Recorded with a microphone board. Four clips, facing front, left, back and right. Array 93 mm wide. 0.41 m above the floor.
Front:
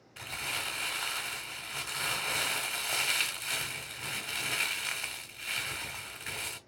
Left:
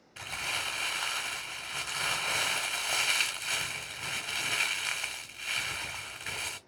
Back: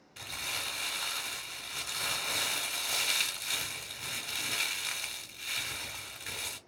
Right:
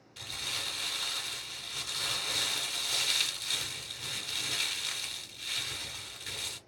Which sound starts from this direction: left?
Crumpling, at 0.2 s.